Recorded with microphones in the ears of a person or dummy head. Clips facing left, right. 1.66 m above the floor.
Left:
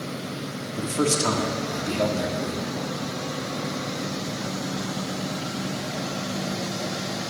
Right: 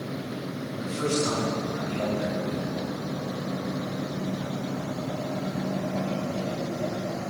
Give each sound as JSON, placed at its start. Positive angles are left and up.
{"t": 0.8, "sound": "a man speaking", "side_deg": 80, "distance_m": 3.5}